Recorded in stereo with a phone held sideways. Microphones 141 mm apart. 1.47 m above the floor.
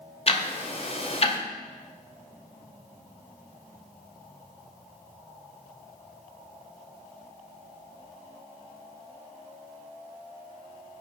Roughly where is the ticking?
Left.